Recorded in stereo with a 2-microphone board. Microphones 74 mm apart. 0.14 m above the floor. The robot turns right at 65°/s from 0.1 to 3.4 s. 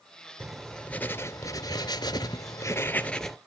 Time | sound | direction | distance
0.4 | writing | 15° right | 0.5 m